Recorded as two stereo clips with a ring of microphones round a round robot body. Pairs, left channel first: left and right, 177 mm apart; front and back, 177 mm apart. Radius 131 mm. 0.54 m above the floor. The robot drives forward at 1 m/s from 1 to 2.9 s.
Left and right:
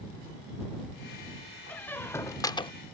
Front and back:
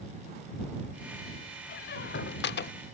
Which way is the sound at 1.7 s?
10° left.